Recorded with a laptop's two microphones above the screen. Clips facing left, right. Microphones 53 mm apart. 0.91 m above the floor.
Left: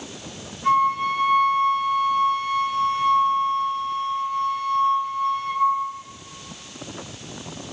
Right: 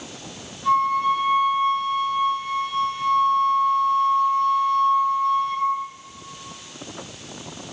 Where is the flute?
40° left (ahead or behind), 4.5 m.